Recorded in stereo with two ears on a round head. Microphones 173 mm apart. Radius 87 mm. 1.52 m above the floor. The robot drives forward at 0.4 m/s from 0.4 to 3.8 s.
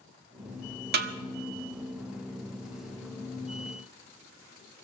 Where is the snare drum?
55° right (ahead or behind), 1.4 m.